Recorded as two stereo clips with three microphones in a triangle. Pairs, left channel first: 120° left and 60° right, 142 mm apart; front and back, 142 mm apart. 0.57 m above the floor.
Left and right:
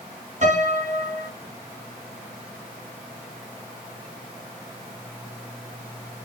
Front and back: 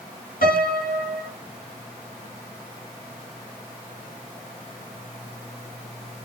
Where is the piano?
20° right, 3.5 m.